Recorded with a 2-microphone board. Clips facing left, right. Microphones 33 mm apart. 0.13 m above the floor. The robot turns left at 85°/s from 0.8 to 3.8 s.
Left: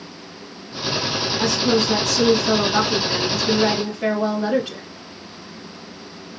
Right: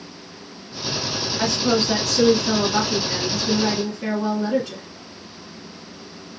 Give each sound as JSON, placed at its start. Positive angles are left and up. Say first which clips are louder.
{"t": 1.4, "sound": "a woman speaking", "louder": "left 1 dB", "side_deg": -25, "distance_m": 1.6}